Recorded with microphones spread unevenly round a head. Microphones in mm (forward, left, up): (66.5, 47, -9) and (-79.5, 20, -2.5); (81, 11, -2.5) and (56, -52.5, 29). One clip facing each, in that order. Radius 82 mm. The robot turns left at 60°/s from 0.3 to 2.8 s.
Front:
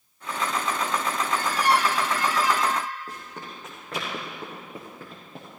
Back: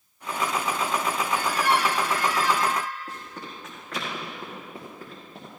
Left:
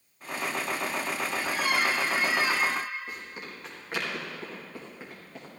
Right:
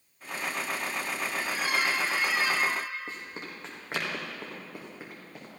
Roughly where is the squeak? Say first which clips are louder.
Front 2 dB, left 2 dB; ahead left.